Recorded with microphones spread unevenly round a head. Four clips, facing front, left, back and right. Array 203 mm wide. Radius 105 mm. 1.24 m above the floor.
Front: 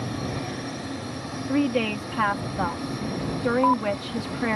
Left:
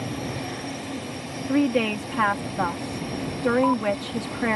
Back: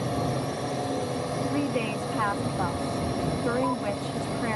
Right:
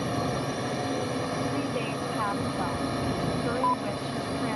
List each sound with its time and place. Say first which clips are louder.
0.0 s a drone: right 2 dB, back 3 dB; 145° right
1.5 s a woman speaking: left 8 dB, front 8 dB; 70° left